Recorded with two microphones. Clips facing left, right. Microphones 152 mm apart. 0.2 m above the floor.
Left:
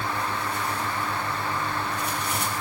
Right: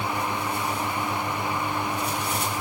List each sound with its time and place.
Only background noise.